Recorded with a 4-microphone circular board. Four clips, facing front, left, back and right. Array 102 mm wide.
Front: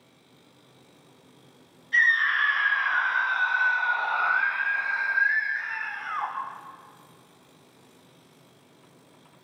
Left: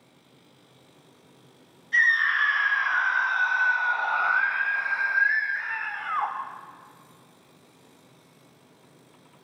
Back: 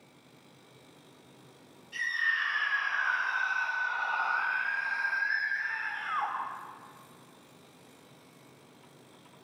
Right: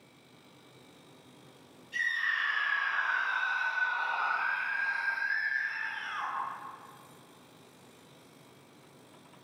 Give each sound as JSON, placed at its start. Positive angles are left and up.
{"t": 1.9, "sound": "a scream", "azimuth_deg": 50, "distance_m": 5.5}